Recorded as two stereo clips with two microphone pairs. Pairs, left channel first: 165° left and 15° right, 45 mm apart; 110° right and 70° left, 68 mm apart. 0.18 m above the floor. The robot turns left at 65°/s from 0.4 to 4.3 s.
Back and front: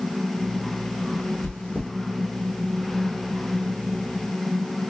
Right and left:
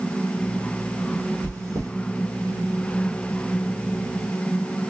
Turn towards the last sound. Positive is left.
turn(degrees=-55)